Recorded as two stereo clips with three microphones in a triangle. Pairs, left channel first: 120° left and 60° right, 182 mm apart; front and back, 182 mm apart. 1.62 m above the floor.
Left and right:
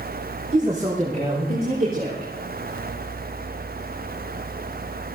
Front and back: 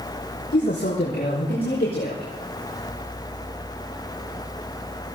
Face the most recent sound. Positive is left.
turn(degrees=-30)